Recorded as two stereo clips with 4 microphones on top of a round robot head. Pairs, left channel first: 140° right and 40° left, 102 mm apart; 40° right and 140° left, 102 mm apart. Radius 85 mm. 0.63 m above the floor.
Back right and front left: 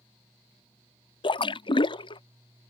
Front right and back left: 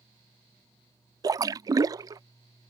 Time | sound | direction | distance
1.2 | a splash | 170° right | ?